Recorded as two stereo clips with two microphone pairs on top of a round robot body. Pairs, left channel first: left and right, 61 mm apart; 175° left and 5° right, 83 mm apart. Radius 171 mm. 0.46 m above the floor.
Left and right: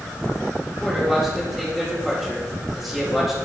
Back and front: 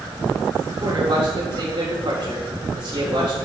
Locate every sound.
0.7 s a man speaking: straight ahead, 4.5 m